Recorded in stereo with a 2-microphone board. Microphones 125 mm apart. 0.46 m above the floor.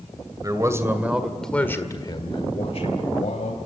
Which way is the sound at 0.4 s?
30° right (ahead or behind).